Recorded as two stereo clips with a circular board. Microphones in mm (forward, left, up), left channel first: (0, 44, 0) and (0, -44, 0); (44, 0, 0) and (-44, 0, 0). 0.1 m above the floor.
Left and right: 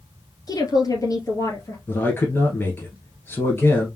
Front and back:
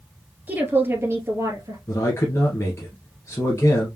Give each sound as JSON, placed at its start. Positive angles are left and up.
{"t": 0.5, "sound": "a woman speaking", "azimuth_deg": 115, "distance_m": 2.0}
{"t": 1.9, "sound": "a man speaking", "azimuth_deg": 40, "distance_m": 1.6}